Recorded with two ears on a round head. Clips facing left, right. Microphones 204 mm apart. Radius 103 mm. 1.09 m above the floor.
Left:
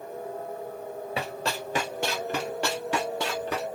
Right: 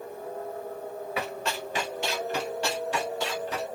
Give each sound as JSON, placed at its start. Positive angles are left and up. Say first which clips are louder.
{"t": 1.2, "sound": "running footsteps", "louder": "even", "side_deg": 25, "distance_m": 1.4}